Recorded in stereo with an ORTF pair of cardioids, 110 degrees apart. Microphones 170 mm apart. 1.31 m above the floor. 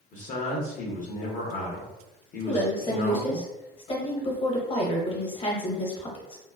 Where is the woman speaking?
35° left, 1.0 m.